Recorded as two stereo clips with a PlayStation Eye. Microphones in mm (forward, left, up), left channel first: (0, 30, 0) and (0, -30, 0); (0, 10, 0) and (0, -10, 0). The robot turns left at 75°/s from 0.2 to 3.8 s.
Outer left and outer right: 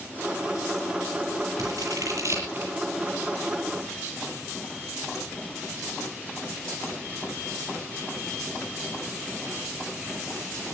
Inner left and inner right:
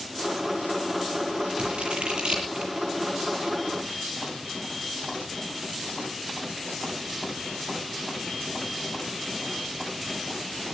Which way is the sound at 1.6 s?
70° right (ahead or behind).